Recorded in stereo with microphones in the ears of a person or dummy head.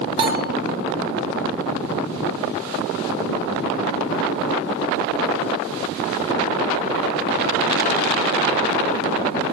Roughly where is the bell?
Right.